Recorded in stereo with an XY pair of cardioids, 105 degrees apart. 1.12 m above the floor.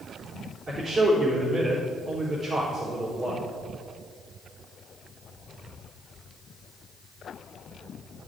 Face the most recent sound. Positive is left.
turn(degrees=-50)